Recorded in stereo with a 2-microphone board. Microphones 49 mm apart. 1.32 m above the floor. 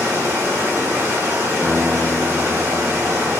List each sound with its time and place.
0.0 s running water: 65° right (ahead or behind), 1.5 m
1.6 s a guitar: 25° left (ahead or behind), 0.8 m